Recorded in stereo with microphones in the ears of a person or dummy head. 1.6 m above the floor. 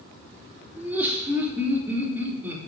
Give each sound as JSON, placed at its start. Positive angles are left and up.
{"t": 0.8, "sound": "laughter", "side_deg": -5, "distance_m": 3.0}